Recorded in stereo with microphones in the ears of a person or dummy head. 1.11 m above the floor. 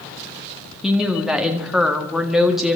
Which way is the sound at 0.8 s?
5° right (ahead or behind).